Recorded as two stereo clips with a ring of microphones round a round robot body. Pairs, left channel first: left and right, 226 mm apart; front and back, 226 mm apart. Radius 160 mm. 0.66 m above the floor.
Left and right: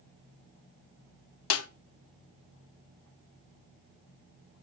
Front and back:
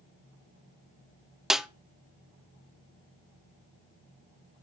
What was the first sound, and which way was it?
A snare drum, 90° left.